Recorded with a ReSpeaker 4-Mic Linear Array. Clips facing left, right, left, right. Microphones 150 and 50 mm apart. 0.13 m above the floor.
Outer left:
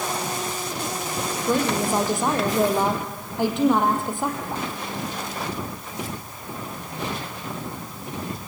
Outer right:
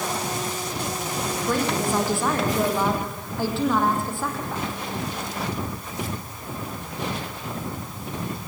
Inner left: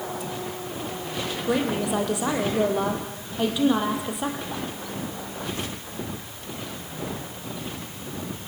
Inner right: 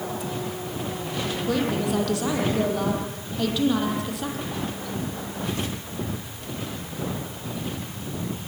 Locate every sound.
1.4 s a woman speaking: 20° left (ahead or behind), 4.5 m